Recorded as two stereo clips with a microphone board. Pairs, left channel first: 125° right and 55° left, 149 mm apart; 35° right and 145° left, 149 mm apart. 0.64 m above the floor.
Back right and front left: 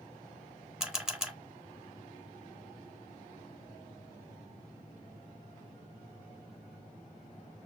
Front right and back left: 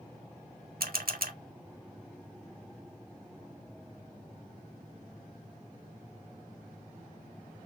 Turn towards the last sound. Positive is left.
turn(degrees=140)